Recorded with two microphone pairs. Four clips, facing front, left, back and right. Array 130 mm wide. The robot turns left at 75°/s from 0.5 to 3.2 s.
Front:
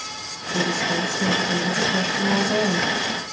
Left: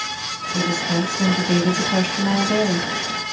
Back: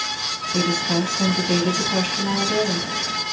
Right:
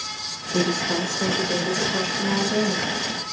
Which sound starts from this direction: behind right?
A woman speaking, at 0.5 s.